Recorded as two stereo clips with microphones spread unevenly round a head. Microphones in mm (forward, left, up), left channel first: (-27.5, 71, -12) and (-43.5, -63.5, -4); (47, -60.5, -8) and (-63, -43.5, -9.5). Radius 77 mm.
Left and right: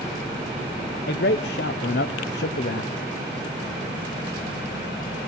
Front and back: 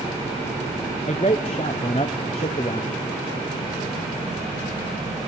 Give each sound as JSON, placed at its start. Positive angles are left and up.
{"t": 1.1, "sound": "a man speaking", "azimuth_deg": 50, "distance_m": 0.7}